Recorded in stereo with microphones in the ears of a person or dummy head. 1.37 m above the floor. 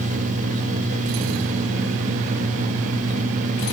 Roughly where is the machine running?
Right.